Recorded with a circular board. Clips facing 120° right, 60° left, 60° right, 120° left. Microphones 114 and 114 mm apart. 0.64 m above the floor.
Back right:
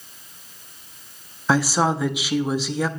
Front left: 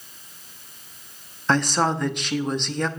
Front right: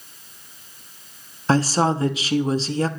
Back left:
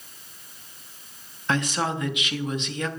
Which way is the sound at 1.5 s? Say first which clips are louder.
Back right 1 dB, front right 7 dB; 40° right.